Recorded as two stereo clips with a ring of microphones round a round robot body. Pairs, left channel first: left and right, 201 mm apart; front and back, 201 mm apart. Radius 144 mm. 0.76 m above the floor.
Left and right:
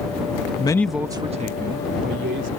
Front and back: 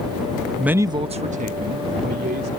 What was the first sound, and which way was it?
A man speaking, 95° left.